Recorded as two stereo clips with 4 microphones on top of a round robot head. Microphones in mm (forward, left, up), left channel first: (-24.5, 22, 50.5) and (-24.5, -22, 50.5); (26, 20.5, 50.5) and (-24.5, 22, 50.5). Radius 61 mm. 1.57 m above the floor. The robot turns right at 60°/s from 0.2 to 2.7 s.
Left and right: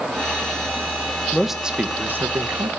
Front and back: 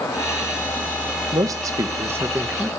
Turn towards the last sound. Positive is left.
turn(degrees=-100)